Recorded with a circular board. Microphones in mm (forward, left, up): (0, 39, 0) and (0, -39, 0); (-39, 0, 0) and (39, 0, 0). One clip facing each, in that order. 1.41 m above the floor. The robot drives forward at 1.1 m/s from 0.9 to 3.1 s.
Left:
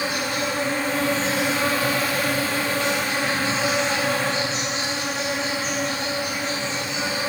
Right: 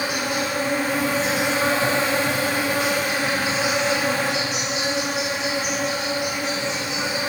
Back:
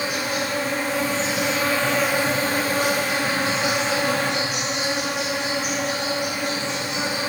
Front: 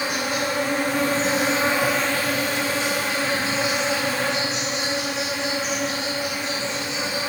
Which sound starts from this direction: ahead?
An insect, at 0.0 s.